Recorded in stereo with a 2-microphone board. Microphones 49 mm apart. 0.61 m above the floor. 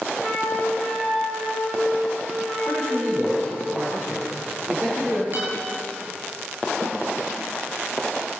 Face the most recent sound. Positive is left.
turn(degrees=-85)